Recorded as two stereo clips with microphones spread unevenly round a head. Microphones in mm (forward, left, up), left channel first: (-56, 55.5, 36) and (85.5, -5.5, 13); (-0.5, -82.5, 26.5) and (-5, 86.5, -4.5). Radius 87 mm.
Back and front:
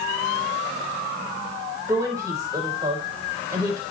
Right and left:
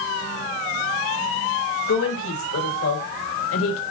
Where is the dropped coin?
I don't hear a dropped coin.